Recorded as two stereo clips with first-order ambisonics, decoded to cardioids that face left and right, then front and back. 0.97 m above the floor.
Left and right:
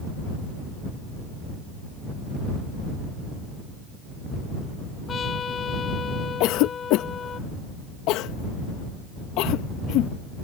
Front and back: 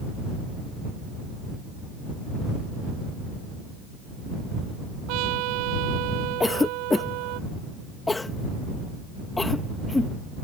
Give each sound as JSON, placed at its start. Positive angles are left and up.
{"t": 5.1, "sound": "a trumpet", "azimuth_deg": 160}
{"t": 6.4, "sound": "a cough", "azimuth_deg": 80}